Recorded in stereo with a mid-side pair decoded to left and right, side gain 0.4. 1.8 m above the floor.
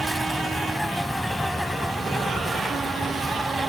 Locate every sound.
0.0 s an insect: 5° left